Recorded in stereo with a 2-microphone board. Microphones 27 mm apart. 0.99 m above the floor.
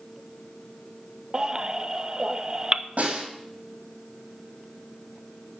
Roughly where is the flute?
No flute in this recording.